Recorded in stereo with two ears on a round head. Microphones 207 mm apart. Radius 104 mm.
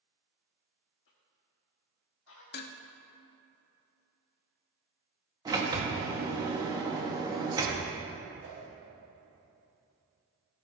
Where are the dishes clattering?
45° left (ahead or behind), 0.6 m.